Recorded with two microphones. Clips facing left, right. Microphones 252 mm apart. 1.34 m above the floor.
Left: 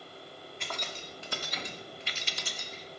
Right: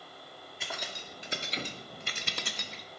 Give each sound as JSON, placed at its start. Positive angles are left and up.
{"t": 0.6, "sound": "keys jangling", "side_deg": -5, "distance_m": 2.0}